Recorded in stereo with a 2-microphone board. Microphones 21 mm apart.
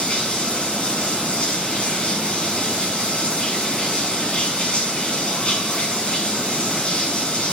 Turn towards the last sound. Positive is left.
turn(degrees=55)  # may be behind; listen again after turning